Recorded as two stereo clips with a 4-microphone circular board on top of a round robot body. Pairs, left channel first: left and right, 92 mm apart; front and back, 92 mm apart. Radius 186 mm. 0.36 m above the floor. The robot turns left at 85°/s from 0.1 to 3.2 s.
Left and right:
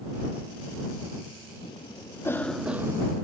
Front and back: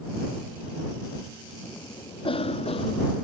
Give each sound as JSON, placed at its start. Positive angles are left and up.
{"t": 1.6, "sound": "a cough", "azimuth_deg": 80}